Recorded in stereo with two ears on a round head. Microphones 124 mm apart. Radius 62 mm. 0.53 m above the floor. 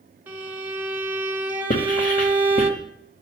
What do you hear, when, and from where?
0.3 s a violin: 10° right (ahead or behind), 1.6 m
1.7 s writing: 70° left (ahead or behind), 2 m